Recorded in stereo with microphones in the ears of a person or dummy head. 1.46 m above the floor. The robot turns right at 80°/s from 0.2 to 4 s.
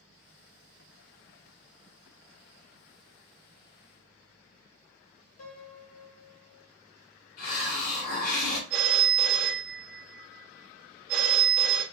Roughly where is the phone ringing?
Right.